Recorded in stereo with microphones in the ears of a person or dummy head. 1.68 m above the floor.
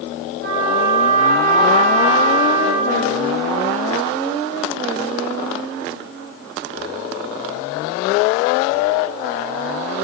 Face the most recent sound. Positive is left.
turn(degrees=-70)  # may be behind; listen again after turning